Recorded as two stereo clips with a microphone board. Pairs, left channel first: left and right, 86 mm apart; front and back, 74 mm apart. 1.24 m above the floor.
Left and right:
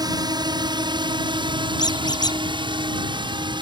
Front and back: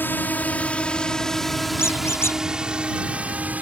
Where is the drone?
60° right; by 3.6 s 110° right.